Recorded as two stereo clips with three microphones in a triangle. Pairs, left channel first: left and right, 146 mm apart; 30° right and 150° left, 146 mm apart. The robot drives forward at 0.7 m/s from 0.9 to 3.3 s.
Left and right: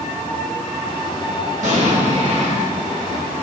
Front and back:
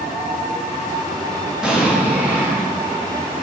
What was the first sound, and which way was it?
An explosion, 125° right.